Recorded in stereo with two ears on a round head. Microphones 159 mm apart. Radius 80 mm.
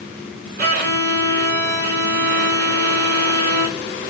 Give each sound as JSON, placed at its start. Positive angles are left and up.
{"t": 0.6, "sound": "a violin", "side_deg": -55, "distance_m": 2.5}